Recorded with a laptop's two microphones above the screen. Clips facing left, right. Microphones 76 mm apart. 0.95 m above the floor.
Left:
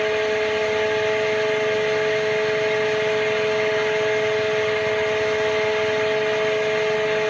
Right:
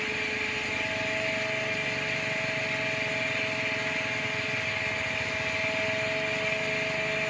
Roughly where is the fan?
Left.